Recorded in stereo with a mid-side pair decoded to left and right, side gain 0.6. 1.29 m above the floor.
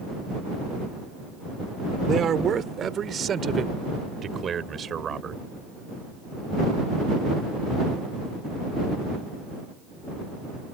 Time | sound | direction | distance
2.1 | a man speaking | 45° right | ?